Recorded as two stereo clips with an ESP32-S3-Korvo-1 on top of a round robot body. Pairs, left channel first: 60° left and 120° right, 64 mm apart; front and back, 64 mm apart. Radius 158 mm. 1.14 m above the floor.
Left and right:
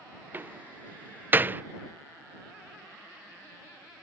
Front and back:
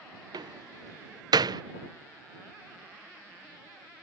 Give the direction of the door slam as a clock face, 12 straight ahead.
6 o'clock.